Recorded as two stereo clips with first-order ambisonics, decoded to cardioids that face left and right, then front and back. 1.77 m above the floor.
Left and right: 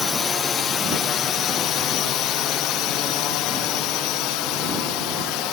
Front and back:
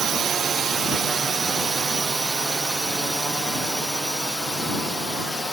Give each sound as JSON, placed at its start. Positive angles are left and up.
{"t": 0.0, "sound": "a drone", "azimuth_deg": 140}